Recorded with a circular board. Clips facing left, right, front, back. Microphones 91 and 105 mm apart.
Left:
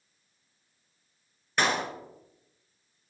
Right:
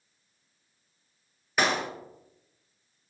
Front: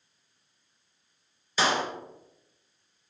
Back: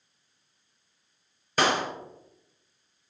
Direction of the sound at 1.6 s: 175° right.